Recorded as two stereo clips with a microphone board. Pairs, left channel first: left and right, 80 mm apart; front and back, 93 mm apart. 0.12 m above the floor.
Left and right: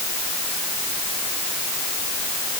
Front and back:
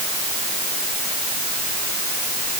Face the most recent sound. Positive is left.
No sound to turn to.